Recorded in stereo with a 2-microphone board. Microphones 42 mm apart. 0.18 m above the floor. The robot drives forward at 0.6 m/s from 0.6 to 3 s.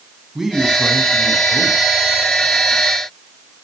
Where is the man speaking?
10° right (ahead or behind), 1.2 m.